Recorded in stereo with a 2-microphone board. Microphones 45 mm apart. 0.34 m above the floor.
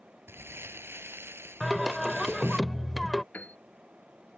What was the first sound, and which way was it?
Crumpling, 60° right (ahead or behind).